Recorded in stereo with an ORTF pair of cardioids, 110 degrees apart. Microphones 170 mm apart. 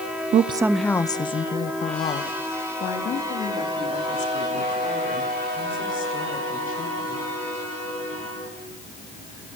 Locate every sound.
0.3 s a woman speaking: 50° right, 0.7 m; by 7.2 s 55° left, 9 m